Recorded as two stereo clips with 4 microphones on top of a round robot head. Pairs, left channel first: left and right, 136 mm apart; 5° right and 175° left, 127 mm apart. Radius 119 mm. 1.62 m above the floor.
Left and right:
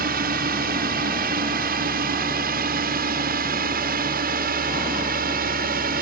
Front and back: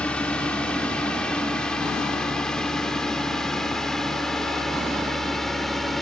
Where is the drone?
90° right; by 6.0 s 95° right.